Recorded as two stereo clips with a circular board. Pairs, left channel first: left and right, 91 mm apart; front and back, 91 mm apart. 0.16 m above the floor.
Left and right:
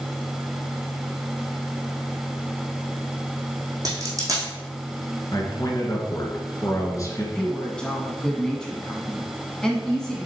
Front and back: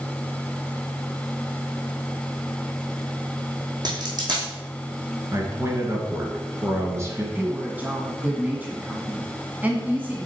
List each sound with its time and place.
3.9 s a dropped coin: 140° right, 2.5 m
5.3 s a man speaking: 130° left, 1.9 m
7.3 s a woman speaking: 155° left, 1.1 m